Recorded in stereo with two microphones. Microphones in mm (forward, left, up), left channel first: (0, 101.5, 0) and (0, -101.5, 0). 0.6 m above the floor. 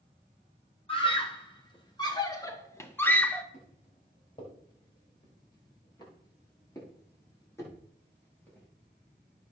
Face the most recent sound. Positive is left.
turn(degrees=10)  # may be behind; listen again after turning